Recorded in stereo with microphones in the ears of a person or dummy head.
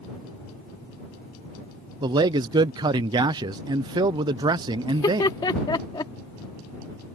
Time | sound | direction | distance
2.0 | a man speaking | 25° right (ahead or behind) | ?
4.9 | laughter | 20° left (ahead or behind) | ?